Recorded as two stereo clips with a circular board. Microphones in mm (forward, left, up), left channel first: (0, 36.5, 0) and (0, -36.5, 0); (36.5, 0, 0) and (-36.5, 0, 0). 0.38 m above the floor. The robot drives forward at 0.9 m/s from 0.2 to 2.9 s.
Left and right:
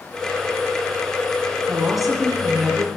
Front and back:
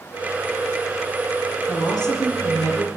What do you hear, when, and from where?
1.7 s a woman speaking: straight ahead, 8 m